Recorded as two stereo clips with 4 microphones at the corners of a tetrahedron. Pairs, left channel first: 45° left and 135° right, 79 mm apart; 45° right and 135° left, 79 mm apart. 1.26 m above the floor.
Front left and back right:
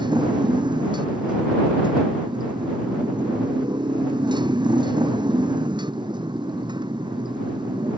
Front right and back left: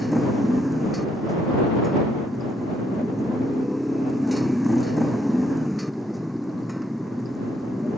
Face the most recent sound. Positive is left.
turn(degrees=-135)